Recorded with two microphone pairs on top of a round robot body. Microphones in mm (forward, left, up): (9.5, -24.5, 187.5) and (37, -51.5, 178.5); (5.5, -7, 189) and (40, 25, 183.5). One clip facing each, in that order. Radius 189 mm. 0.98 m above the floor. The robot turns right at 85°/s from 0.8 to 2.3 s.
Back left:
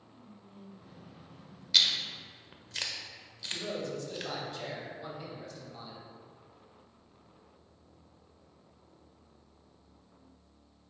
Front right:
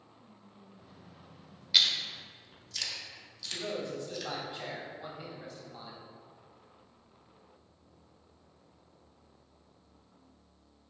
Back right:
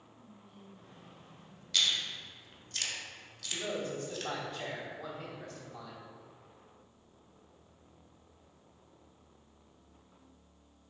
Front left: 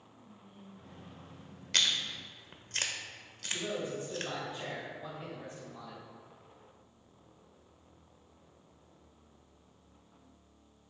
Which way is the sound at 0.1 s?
115° left.